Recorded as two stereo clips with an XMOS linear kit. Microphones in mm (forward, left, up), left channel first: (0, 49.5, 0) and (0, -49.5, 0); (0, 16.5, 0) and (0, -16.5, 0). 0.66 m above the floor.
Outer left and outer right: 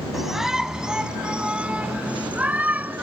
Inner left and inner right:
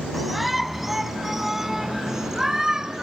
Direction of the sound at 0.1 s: Centre (ahead or behind).